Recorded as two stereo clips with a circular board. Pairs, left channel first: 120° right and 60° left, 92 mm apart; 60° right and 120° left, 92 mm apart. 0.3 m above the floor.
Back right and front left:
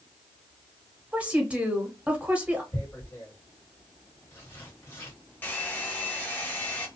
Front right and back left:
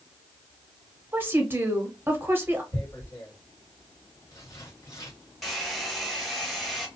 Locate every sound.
1.1 s a woman speaking: 115° left, 1.0 m
2.7 s tearing paper: 80° right, 1.5 m
5.4 s a hair dryer: 145° right, 1.0 m